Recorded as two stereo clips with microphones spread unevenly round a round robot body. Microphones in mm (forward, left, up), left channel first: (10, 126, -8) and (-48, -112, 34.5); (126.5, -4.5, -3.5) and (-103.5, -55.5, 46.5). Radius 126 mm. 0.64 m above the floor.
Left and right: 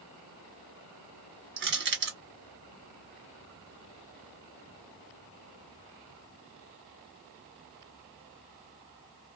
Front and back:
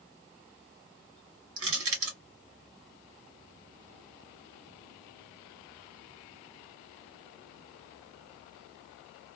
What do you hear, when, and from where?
1.6 s crushing: 145° right, 1.8 m